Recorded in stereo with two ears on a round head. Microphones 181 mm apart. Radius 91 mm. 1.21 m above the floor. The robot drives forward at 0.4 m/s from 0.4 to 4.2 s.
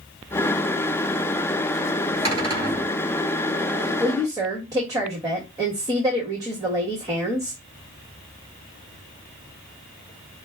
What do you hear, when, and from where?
2.2 s a cupboard door: 20° right (ahead or behind), 4.5 m
4.0 s a woman speaking: 20° right (ahead or behind), 1.7 m